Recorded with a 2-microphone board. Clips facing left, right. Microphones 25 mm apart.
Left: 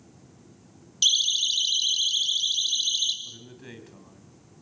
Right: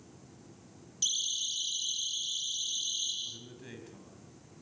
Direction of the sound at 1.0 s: 65° left (ahead or behind).